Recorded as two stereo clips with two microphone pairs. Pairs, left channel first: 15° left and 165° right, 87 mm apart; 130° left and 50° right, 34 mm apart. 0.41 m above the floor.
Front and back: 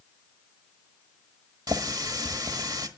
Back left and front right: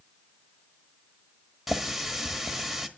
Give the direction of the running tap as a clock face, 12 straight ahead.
4 o'clock.